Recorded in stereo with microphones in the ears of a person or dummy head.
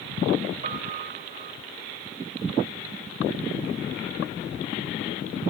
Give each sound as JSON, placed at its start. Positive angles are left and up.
{"t": 0.6, "sound": "a piano", "side_deg": -45, "distance_m": 5.5}